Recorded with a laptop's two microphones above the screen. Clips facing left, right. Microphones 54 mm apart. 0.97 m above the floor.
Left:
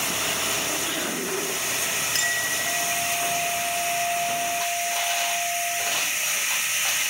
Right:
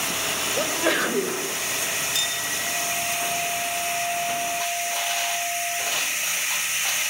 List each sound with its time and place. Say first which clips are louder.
0.6 s a sneeze: right 6 dB; 85° right, 4.5 m
2.1 s a clink: left 3 dB; 50° left (ahead or behind), 7.5 m